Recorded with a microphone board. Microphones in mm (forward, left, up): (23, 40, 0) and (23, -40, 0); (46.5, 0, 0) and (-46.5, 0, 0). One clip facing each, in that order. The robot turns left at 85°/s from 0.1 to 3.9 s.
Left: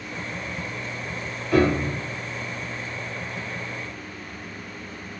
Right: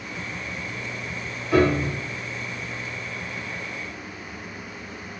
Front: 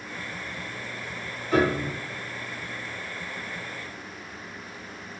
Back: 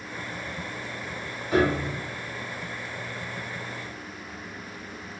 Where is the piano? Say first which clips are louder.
Even, even; 155° right, 1.6 m; by 1.9 s 165° left, 1.6 m.